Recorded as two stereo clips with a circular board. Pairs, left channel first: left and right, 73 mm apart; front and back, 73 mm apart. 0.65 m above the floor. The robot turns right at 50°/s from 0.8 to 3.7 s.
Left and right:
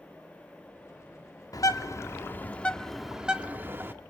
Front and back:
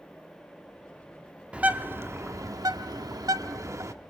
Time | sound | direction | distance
1.5 | a bird | 110° left | 1.1 m